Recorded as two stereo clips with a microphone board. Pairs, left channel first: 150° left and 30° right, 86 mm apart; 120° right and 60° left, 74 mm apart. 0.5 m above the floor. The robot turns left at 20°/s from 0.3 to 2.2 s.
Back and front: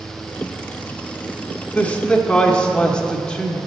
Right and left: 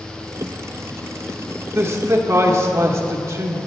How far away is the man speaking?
About 1.0 m.